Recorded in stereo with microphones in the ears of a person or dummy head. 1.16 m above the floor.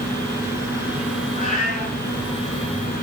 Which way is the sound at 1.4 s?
45° left (ahead or behind).